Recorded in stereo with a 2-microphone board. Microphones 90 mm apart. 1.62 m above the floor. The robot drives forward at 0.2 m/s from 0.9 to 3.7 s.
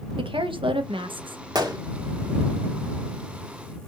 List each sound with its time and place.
0.2 s a woman speaking: 75° right (ahead or behind), 1.0 m; by 1.4 s 70° right (ahead or behind), 1.0 m
1.6 s a gunshot: 50° right (ahead or behind), 1.6 m